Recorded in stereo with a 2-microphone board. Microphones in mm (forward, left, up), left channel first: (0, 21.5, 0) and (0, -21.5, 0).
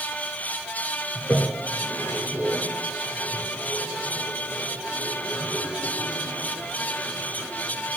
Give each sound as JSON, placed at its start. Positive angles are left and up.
{"t": 1.1, "sound": "a toilet flushing", "side_deg": 50, "distance_m": 3.5}